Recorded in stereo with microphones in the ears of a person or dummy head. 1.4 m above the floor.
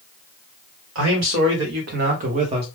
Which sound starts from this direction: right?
A man speaking, at 0.9 s.